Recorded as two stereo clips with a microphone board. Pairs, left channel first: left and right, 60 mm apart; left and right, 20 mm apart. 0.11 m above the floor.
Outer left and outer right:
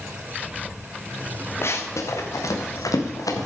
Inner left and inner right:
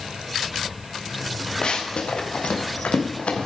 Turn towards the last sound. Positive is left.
turn(degrees=90)